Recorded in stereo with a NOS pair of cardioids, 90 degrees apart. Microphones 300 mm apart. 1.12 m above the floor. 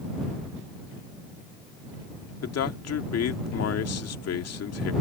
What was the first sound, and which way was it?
A man speaking, 55° left.